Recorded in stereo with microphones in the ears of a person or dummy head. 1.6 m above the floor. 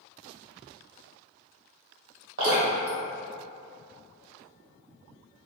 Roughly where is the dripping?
Right.